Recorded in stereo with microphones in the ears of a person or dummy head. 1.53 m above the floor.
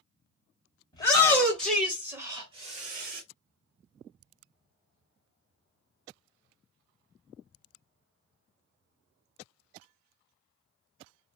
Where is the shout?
20° left (ahead or behind), 1.4 m; by 3.2 s 55° right (ahead or behind), 1.2 m.